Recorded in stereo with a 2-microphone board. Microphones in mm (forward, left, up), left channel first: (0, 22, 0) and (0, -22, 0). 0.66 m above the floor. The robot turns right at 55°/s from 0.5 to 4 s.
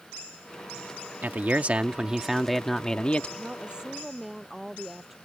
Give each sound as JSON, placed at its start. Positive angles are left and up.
{"t": 1.2, "sound": "a man speaking", "azimuth_deg": -70}
{"t": 3.4, "sound": "a woman speaking", "azimuth_deg": -40}